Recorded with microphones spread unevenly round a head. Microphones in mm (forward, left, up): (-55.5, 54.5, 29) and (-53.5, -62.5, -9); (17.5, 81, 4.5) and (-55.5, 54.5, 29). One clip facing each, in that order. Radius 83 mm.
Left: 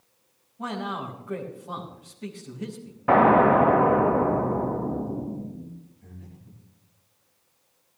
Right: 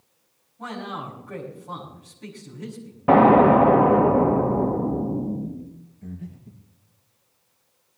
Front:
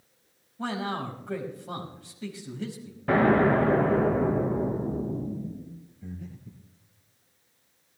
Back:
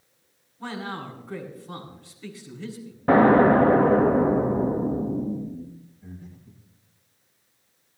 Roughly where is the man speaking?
Ahead.